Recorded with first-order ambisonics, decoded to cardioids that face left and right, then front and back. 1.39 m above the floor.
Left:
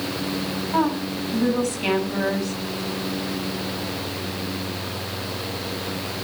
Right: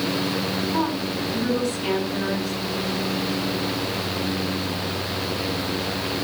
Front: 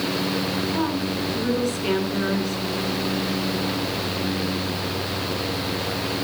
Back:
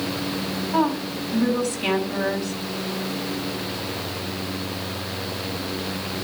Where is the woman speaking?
135° left, 8 m.